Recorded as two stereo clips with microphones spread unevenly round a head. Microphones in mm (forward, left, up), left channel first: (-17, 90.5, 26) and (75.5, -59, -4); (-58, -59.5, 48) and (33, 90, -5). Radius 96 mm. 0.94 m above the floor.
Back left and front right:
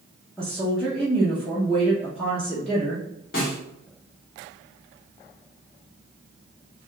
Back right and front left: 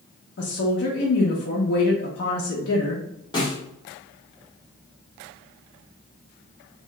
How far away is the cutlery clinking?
No cutlery clinking in this recording.